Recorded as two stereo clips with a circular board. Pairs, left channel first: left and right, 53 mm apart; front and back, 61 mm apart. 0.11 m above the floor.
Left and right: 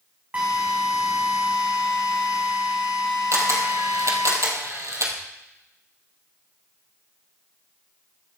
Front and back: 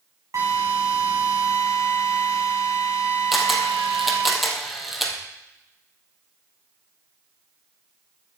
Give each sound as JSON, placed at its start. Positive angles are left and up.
{"t": 0.3, "sound": "a drill", "azimuth_deg": -150, "distance_m": 4.5}
{"t": 3.3, "sound": "a camera shutter", "azimuth_deg": -90, "distance_m": 2.5}